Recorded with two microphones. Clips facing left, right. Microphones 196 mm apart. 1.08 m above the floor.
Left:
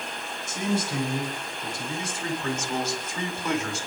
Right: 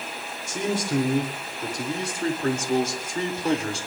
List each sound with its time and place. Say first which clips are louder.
0.5 s a man speaking: right 2 dB; 80° right, 3 m; by 3.9 s 30° right (ahead or behind), 3 m